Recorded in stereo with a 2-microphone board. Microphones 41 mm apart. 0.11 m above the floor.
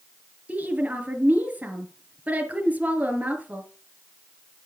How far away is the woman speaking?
About 2.5 m.